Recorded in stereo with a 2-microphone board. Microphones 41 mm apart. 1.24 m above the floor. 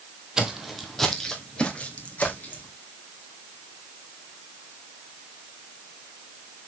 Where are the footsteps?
15° right (ahead or behind), 1.8 m; by 2.7 s 45° left (ahead or behind), 3.5 m.